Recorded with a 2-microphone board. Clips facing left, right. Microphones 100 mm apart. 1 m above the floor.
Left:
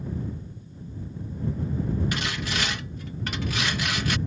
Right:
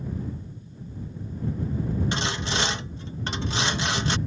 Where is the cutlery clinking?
No cutlery clinking in this recording.